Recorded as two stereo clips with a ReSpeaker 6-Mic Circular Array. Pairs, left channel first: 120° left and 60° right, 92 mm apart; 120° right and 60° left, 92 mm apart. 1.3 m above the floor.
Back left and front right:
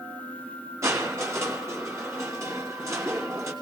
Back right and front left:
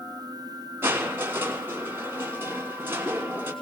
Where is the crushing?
5° right, 3.5 m.